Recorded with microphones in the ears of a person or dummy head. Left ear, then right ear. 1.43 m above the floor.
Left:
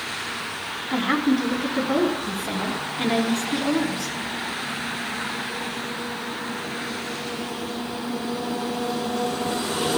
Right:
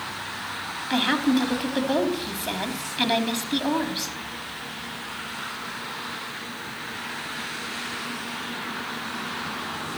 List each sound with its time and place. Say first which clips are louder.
0.9 s a woman speaking: even; 40° right (ahead or behind), 3.5 m